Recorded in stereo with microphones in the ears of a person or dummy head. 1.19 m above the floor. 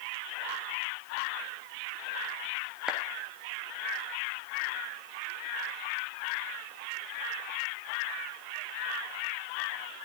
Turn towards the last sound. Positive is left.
turn(degrees=-5)  # may be behind; listen again after turning